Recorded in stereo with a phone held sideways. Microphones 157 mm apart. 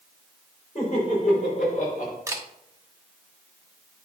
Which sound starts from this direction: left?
Laughter, at 0.8 s.